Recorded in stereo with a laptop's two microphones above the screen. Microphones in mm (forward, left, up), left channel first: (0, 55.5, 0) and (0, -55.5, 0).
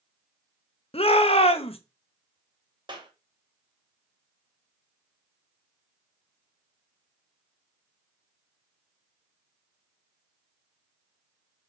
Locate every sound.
0.9 s a shout: 55° left (ahead or behind), 0.8 m
2.9 s a clap: 40° right (ahead or behind), 1.1 m